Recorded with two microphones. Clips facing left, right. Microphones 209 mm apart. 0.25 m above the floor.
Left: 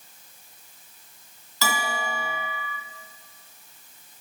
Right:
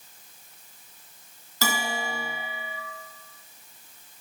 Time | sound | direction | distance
1.6 | a bell | 50° right (ahead or behind) | 0.8 m